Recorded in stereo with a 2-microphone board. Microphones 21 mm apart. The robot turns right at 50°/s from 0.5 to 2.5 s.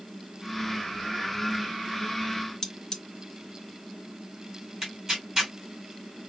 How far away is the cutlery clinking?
About 0.5 m.